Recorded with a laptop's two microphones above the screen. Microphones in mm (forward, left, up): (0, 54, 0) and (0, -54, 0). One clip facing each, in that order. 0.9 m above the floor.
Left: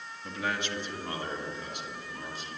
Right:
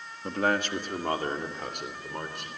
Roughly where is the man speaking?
Right.